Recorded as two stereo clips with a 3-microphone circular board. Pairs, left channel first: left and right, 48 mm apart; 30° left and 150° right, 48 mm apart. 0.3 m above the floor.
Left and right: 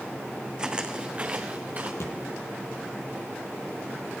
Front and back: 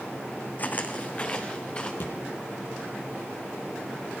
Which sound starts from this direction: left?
A thud, at 2.0 s.